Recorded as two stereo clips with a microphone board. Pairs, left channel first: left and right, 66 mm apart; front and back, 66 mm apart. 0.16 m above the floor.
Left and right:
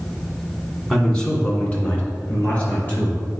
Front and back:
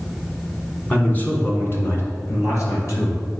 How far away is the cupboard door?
No cupboard door in this recording.